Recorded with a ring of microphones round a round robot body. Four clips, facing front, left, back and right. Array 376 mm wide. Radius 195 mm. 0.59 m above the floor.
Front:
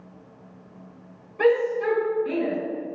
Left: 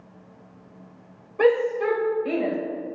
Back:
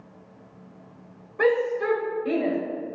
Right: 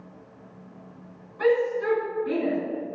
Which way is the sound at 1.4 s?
105° left.